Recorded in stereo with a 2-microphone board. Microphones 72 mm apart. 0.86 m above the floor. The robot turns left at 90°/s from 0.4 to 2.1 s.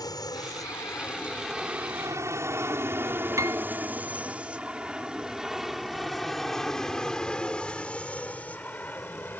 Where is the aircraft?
65° left (ahead or behind); by 9.4 s 25° left (ahead or behind).